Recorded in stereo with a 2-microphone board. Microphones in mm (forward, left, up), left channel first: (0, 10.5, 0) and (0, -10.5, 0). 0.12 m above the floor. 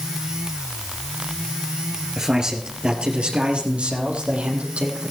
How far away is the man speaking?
About 2 m.